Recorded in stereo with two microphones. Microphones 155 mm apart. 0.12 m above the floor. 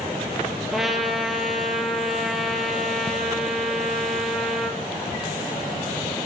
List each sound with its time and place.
0.7 s a trumpet: centre (ahead or behind), 1.1 m